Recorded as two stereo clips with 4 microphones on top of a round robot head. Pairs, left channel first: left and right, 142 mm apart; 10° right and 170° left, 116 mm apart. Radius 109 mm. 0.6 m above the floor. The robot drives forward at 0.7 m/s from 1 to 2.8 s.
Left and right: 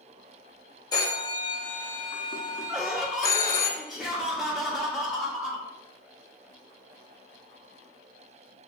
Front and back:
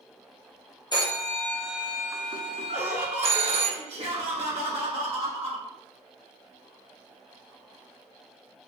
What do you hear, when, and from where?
0.9 s a phone ringing: 35° left, 0.8 m; by 3.7 s 155° left, 0.9 m
2.7 s laughter: straight behind, 1.2 m